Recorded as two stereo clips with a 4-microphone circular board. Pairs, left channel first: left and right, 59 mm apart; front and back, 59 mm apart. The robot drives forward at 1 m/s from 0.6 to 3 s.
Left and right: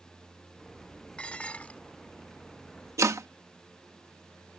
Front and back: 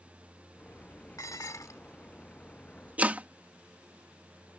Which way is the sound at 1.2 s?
20° left.